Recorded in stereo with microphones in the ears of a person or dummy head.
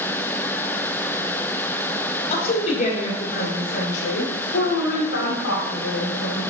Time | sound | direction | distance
2.3 | a woman speaking | 40° left (ahead or behind) | 4 m